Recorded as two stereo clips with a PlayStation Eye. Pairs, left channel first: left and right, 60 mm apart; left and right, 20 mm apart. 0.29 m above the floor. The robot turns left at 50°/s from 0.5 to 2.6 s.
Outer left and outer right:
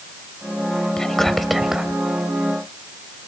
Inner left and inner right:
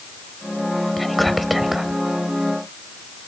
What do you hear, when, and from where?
1.0 s whispering: 10° left (ahead or behind), 1.2 m; by 1.9 s 10° right (ahead or behind), 1.2 m